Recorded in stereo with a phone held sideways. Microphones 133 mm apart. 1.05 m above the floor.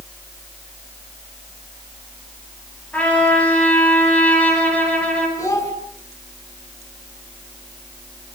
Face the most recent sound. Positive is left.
turn(degrees=25)  # may be behind; listen again after turning